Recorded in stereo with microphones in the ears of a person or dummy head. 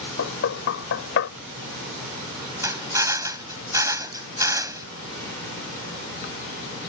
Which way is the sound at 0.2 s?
70° left (ahead or behind).